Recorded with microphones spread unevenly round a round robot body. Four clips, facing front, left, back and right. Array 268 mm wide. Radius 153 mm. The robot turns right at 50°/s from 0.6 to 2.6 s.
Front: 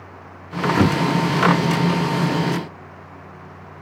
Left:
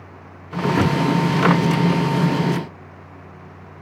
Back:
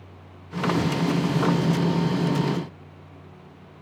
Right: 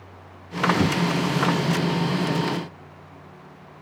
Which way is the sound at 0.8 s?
5° right.